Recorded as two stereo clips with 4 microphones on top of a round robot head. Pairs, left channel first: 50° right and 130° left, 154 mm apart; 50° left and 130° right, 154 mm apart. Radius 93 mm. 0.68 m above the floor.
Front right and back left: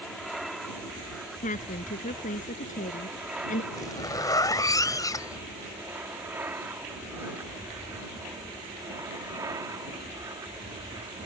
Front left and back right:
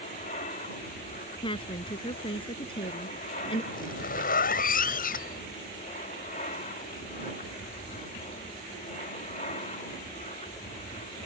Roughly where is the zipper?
Ahead.